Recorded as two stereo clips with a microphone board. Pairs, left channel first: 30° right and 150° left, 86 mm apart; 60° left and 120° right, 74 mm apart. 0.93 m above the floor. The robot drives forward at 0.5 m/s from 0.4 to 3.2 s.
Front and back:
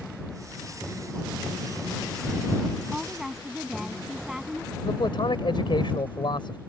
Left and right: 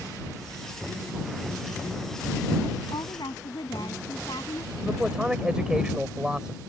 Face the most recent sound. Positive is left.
turn(degrees=-40)